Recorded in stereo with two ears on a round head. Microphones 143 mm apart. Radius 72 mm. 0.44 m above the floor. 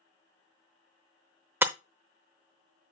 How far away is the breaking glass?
About 0.7 m.